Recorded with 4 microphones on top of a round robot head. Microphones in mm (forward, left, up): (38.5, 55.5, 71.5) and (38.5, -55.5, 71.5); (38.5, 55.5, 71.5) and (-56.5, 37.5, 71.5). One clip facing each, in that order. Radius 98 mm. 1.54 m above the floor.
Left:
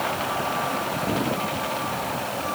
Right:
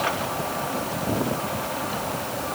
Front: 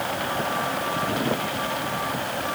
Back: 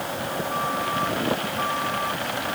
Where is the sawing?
I don't hear sawing.